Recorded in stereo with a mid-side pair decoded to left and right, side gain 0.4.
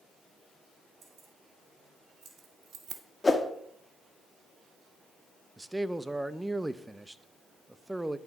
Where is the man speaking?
10° right, 0.6 m.